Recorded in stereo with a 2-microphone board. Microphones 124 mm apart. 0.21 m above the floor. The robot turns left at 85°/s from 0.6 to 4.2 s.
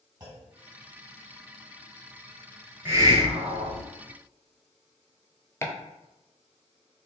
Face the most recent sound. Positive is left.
turn(degrees=20)  # may be behind; listen again after turning